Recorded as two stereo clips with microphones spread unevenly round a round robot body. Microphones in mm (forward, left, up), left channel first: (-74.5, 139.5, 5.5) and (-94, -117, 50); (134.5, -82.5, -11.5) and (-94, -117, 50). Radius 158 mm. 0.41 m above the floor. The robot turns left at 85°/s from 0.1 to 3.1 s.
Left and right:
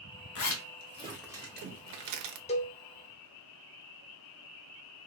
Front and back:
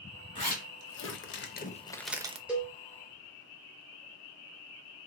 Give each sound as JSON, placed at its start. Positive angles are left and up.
{"t": 0.3, "sound": "a zipper", "azimuth_deg": 70, "distance_m": 0.6}
{"t": 2.5, "sound": "a cowbell", "azimuth_deg": 85, "distance_m": 0.7}